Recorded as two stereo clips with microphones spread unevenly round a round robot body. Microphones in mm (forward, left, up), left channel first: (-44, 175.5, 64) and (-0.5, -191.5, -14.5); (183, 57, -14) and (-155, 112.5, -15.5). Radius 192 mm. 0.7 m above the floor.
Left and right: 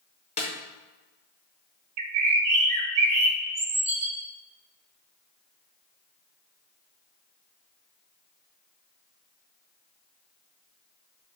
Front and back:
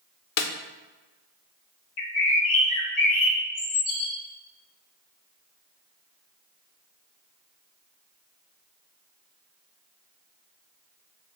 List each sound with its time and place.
0.4 s a snare drum: 30° left, 0.6 m
2.0 s a bird: 55° right, 0.7 m